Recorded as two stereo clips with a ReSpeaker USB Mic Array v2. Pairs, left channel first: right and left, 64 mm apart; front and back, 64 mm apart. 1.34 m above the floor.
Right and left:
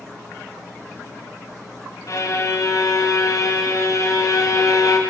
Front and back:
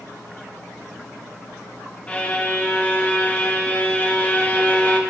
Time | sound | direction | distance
2.1 | a violin | 70° right | 0.7 m